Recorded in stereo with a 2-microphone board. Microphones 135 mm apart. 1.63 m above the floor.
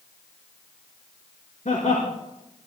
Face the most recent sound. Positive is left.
turn(degrees=70)  # may be behind; listen again after turning